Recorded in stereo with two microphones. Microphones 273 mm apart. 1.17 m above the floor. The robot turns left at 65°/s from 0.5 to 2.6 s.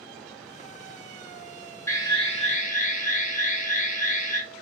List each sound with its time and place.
1.9 s an alarm: 165° left, 1.2 m; by 4.4 s 115° left, 1.2 m